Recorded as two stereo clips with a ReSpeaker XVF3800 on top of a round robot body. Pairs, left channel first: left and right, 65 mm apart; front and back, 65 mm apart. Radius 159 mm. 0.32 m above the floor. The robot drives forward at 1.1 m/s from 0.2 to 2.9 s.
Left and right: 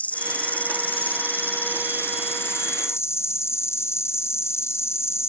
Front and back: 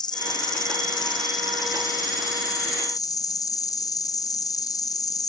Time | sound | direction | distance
0.0 | an insect | 20° left | ?